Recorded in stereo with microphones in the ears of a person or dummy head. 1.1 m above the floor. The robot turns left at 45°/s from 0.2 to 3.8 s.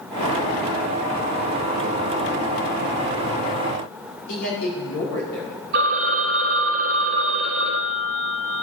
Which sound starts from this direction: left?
A man speaking, at 4.3 s.